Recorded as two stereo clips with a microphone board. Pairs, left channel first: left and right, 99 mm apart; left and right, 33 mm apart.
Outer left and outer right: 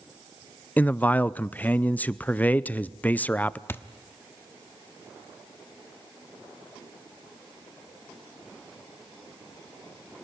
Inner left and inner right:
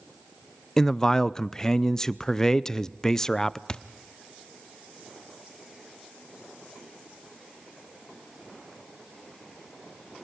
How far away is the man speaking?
About 0.5 m.